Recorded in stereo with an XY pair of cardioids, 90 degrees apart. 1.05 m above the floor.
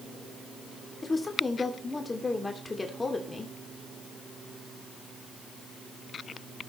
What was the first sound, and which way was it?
A woman speaking, 30° left.